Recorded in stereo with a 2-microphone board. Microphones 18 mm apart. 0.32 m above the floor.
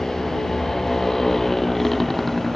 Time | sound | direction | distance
0.0 | a motorcycle | 25° left (ahead or behind) | ?